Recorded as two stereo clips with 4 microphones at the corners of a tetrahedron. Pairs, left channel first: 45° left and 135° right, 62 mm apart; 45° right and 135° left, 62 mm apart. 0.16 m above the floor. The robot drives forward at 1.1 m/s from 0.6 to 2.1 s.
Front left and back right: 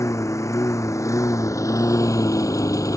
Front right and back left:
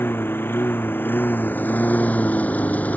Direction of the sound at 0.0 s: 10° left.